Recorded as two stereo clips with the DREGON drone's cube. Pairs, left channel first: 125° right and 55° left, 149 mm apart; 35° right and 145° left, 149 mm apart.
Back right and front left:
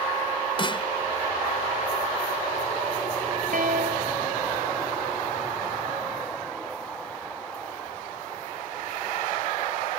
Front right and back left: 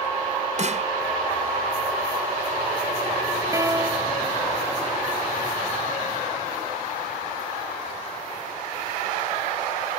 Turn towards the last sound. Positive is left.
turn(degrees=75)